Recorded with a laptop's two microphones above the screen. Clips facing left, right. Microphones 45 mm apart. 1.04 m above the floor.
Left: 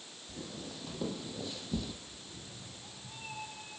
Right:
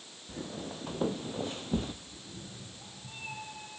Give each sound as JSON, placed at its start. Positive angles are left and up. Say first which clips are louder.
{"t": 0.3, "sound": "footsteps", "louder": "right 5 dB", "side_deg": -35, "distance_m": 1.9}
{"t": 2.1, "sound": "a cat meowing", "louder": "right 3 dB", "side_deg": -65, "distance_m": 5.0}